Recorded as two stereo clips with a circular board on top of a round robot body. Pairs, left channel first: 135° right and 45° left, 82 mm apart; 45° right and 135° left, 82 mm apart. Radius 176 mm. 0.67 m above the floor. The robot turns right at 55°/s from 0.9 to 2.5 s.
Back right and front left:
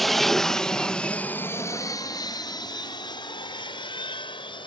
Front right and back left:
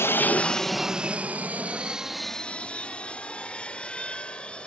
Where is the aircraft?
45° right; by 4.7 s 120° right.